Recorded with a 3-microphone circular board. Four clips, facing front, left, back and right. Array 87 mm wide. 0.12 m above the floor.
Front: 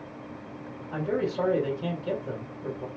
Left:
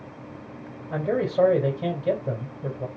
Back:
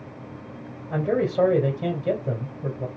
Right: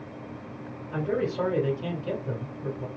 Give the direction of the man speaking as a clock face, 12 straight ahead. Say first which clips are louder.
Left 3 dB, back 5 dB; 8 o'clock.